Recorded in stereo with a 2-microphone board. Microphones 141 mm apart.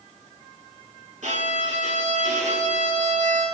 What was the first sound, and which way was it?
A violin, 60° right (ahead or behind).